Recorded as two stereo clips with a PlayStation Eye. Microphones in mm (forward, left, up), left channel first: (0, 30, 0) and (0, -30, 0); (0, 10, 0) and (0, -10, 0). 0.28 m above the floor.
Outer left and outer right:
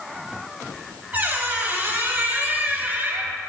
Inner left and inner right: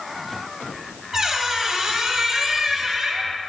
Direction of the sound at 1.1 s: 30° right (ahead or behind).